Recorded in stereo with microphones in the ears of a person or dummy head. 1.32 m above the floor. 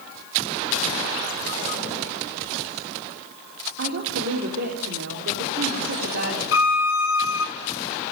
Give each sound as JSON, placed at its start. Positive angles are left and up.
{"t": 3.8, "sound": "a woman speaking", "side_deg": -55, "distance_m": 4.0}
{"t": 6.5, "sound": "a violin", "side_deg": 75, "distance_m": 1.4}